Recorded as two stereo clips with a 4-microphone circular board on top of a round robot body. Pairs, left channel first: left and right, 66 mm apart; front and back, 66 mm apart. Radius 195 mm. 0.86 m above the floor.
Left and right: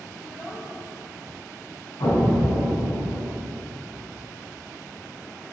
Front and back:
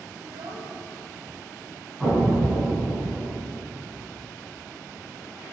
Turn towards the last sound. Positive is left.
turn(degrees=90)